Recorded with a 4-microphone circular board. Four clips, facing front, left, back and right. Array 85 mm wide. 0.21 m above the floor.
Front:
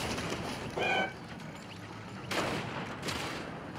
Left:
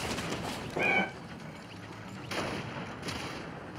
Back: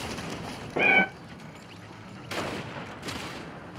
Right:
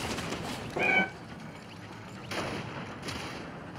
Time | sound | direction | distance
0.8 | a cat meowing | 175° right | 0.8 m